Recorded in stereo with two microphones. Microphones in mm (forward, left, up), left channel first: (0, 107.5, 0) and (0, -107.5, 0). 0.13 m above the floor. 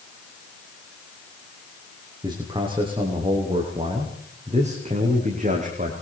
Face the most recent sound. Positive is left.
turn(degrees=-40)  # may be behind; listen again after turning